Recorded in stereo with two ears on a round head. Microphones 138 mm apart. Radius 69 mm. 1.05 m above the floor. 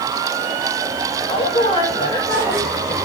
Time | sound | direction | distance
1.3 | a woman speaking | 40° left (ahead or behind) | 5 m